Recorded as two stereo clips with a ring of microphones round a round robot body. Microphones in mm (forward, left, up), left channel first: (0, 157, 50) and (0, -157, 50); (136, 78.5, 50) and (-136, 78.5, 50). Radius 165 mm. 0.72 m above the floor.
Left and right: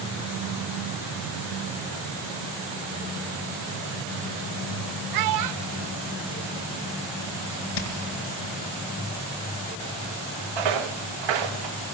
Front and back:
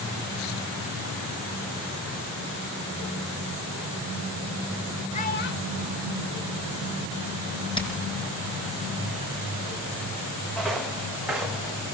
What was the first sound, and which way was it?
A child speaking, 70° right.